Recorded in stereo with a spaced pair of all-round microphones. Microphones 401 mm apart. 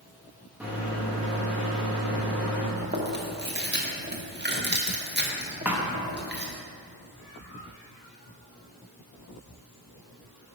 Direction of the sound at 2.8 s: 25° right (ahead or behind).